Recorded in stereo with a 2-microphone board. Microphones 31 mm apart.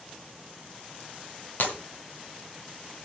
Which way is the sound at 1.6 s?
65° left (ahead or behind).